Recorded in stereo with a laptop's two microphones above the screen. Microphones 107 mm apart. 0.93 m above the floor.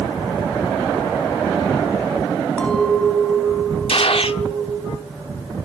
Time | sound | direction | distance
2.6 | a clink | 10° left (ahead or behind) | 4 m
3.9 | a gunshot | 65° left (ahead or behind) | 0.8 m